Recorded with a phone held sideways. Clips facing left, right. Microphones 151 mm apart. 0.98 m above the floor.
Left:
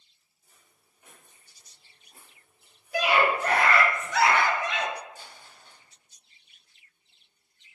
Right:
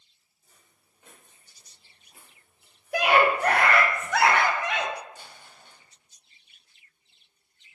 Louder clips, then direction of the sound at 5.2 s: Even; 65° right (ahead or behind).